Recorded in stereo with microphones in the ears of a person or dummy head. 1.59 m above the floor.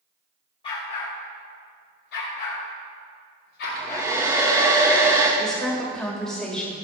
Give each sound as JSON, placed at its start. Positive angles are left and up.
{"t": 0.6, "sound": "a dog barking", "side_deg": 35, "distance_m": 1.8}
{"t": 3.6, "sound": "a hair dryer", "side_deg": -20, "distance_m": 1.1}
{"t": 5.4, "sound": "a woman speaking", "side_deg": 5, "distance_m": 1.4}